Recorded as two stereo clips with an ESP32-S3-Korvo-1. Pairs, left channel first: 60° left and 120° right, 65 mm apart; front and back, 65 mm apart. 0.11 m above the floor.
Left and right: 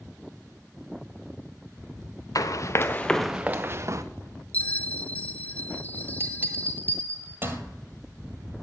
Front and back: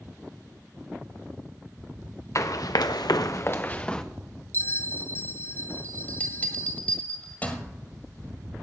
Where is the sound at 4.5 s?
15° left, 0.5 m.